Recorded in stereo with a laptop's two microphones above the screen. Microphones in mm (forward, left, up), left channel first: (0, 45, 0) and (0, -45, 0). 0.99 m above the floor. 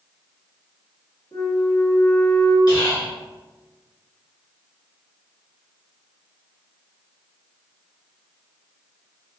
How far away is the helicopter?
I don't hear a helicopter.